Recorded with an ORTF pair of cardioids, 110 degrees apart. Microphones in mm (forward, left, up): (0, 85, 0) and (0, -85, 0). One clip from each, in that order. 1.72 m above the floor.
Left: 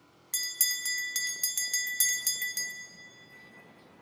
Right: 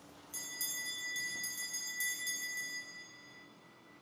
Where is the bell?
70° left, 0.5 m.